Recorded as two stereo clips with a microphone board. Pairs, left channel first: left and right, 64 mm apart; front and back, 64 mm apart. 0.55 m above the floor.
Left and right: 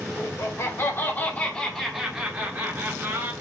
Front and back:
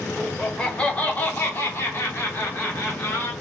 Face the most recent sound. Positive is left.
turn(degrees=-45)